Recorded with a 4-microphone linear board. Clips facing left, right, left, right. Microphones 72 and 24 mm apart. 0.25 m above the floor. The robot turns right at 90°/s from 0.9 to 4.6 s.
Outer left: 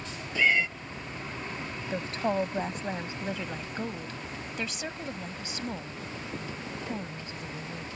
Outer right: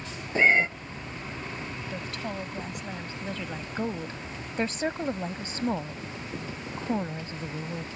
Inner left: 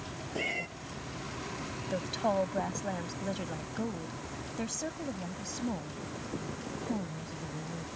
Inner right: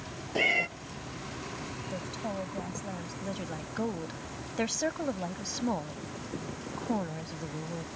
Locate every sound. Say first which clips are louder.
0.3 s a cat meowing: outer right 4 dB, inner right 8 dB; 35° right (ahead or behind)
1.9 s a woman speaking: outer left 8 dB, inner left 7 dB; 40° left; by 7.9 s 80° right